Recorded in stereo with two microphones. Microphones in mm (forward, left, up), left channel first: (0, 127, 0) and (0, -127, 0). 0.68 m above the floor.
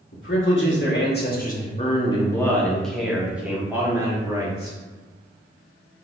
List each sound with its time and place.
0.1 s a man speaking: 50° left (ahead or behind), 1.4 m; by 4.8 s 15° right (ahead or behind), 2.5 m